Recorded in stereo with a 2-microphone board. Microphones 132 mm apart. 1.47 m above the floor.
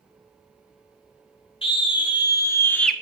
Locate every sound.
1.6 s a scream: 40° left (ahead or behind), 2 m; by 2.9 s 5° left (ahead or behind), 1.0 m